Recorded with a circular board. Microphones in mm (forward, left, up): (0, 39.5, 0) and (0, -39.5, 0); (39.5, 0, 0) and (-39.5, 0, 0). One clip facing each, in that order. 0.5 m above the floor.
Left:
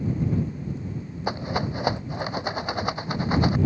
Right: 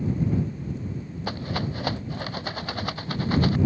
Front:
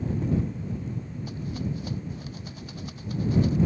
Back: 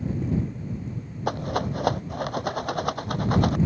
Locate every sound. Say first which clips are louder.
1.3 s a rattle: left 3 dB, back 9 dB; 160° left